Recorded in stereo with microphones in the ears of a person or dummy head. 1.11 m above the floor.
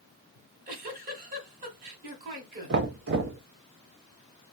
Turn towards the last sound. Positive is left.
turn(degrees=-50)  # may be behind; listen again after turning